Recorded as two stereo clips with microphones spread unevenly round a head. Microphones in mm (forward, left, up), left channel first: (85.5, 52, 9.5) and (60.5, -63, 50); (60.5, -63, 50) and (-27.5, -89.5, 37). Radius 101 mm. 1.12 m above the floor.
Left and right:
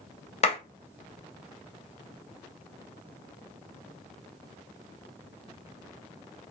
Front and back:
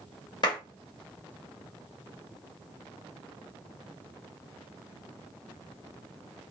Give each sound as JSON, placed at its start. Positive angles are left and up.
{"t": 0.4, "sound": "a clap", "azimuth_deg": 70, "distance_m": 1.3}